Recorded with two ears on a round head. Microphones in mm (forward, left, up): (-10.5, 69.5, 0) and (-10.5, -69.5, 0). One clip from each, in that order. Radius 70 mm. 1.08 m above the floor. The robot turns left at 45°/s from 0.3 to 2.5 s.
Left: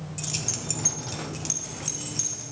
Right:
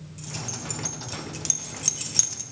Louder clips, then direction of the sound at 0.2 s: Left 4 dB; 30° left (ahead or behind).